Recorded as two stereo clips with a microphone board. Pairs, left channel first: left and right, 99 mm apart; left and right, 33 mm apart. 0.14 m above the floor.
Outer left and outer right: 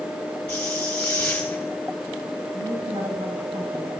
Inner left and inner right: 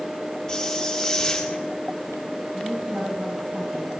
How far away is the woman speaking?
About 9 m.